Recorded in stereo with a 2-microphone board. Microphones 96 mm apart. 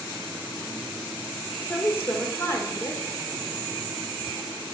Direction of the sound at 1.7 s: 25° left (ahead or behind).